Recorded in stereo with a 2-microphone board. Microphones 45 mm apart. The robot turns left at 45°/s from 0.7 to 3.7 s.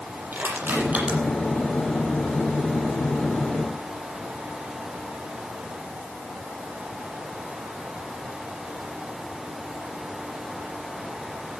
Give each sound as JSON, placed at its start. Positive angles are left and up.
{"t": 0.3, "sound": "crushing", "side_deg": -45, "distance_m": 7.5}